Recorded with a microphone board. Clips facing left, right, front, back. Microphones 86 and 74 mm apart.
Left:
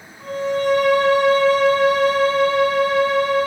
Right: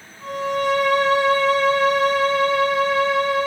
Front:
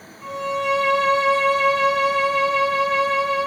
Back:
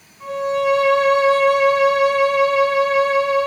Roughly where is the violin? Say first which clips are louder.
Left 2 dB, back 5 dB; left.